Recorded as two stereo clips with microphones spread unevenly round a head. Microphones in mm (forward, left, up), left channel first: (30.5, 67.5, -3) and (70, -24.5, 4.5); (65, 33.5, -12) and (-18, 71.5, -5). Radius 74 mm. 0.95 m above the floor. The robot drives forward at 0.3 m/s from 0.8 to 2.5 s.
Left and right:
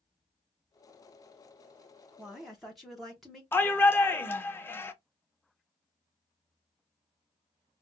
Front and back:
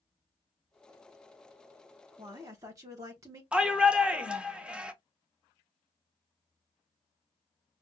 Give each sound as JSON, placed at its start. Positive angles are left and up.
{"t": 2.2, "sound": "a woman speaking", "azimuth_deg": -160, "distance_m": 0.7}
{"t": 3.5, "sound": "a shout", "azimuth_deg": 80, "distance_m": 0.6}